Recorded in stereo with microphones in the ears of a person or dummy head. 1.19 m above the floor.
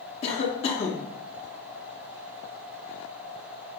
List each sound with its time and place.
0.2 s a cough: 35° left (ahead or behind), 0.7 m